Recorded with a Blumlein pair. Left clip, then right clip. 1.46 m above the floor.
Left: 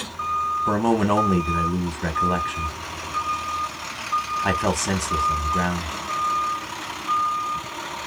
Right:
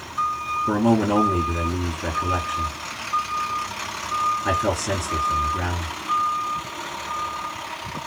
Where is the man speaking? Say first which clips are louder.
Right 2 dB; 50° left, 1.3 m.